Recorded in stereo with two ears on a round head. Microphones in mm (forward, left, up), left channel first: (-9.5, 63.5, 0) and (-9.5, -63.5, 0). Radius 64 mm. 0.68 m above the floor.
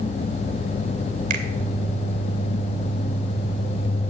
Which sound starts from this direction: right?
A finger snap, at 1.3 s.